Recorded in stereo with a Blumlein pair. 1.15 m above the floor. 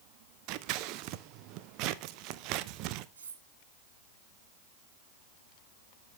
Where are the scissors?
40° right, 0.7 m.